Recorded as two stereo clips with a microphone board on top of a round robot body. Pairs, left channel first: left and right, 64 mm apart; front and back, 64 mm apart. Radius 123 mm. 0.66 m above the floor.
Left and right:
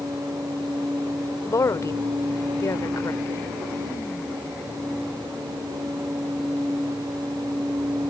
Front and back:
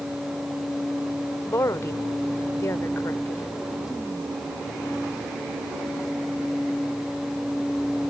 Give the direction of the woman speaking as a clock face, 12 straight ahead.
10 o'clock.